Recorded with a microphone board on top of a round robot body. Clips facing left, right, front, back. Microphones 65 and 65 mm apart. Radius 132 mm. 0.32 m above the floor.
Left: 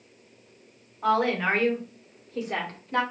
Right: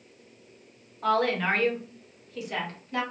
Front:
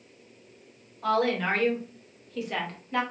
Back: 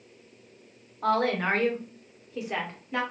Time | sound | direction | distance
1.0 | a woman speaking | 170° left | 1.5 m